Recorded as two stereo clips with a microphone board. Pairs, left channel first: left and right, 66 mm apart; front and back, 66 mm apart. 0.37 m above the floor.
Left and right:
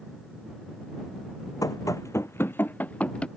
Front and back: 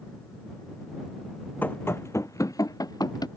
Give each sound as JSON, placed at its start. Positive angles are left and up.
{"t": 1.6, "sound": "running footsteps", "azimuth_deg": 65}